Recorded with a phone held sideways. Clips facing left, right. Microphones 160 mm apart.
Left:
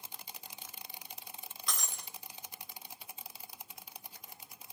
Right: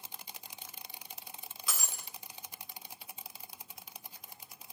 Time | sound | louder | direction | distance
1.7 | breaking glass | even | 5° right (ahead or behind) | 3 m